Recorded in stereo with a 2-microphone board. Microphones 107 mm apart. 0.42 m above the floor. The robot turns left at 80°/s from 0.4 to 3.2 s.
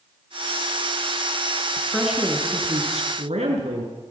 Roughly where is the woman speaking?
Ahead.